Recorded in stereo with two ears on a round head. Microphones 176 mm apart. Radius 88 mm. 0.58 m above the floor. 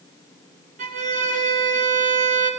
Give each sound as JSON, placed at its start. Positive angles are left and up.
{"t": 0.8, "sound": "a violin", "side_deg": -40, "distance_m": 2.5}